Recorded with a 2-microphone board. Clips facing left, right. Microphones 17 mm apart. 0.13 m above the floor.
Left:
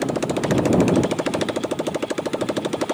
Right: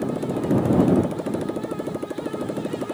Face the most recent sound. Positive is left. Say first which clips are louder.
# left 3 dB
turn(degrees=55)  # may be behind; listen again after turning